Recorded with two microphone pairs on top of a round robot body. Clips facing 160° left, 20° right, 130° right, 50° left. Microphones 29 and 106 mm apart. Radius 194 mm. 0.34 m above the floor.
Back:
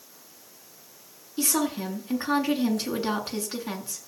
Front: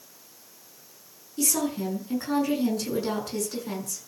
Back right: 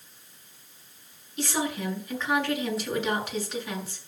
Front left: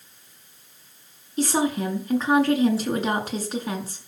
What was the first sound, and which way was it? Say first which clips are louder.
A woman speaking: back 1 dB, front left 7 dB; 105° left.